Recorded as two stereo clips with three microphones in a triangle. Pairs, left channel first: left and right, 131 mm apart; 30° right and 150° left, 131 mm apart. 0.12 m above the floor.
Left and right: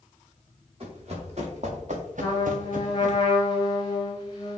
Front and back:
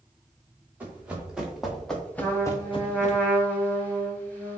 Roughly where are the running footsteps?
Behind right.